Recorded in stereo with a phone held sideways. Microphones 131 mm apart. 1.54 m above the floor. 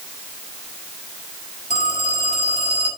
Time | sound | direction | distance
1.7 | a phone ringing | 65° left (ahead or behind) | 8 m